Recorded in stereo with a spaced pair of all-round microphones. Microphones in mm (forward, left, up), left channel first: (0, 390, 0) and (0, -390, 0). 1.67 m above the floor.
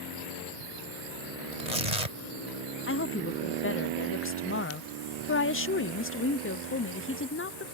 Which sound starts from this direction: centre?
A woman speaking, at 2.9 s.